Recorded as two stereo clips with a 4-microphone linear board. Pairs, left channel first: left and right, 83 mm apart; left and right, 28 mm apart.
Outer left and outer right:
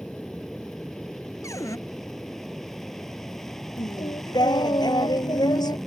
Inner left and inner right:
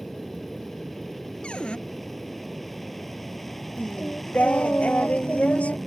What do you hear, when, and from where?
0.0 s an aircraft: 5° left (ahead or behind)
1.4 s a cupboard door: 40° left (ahead or behind)
3.8 s singing: 55° left (ahead or behind)